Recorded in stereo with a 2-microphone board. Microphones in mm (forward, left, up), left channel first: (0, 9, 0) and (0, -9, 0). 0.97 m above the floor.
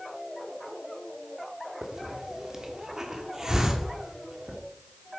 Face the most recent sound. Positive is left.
turn(degrees=-30)  # may be behind; listen again after turning